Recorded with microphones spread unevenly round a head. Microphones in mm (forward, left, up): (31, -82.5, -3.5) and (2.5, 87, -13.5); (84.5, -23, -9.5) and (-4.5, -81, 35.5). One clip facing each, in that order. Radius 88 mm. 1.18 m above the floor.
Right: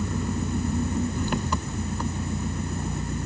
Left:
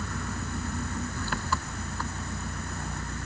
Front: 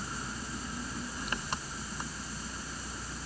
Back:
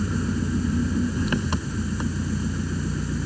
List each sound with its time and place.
0.0 s an engine running: 155° right